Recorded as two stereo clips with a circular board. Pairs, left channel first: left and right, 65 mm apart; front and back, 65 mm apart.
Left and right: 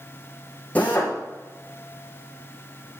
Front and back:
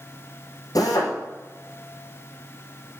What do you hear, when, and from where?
0.8 s a drill: 20° left, 5 m